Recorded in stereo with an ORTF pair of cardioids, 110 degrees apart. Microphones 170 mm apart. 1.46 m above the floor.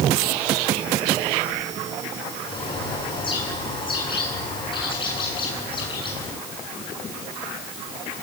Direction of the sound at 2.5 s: 30° left.